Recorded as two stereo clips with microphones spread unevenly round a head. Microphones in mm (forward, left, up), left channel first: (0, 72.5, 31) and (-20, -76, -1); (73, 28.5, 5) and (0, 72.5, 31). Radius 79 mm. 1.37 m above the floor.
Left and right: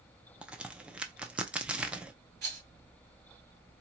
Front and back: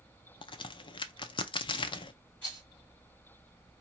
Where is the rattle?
120° right, 2.5 m.